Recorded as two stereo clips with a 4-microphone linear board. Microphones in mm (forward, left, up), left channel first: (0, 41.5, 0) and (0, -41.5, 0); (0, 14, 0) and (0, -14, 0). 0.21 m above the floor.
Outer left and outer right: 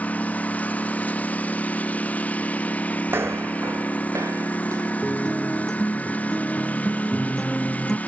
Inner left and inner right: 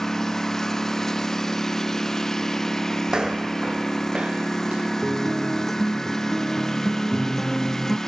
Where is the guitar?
5° left (ahead or behind).